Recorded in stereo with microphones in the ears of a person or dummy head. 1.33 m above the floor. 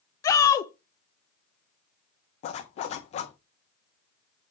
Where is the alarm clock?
No alarm clock in this recording.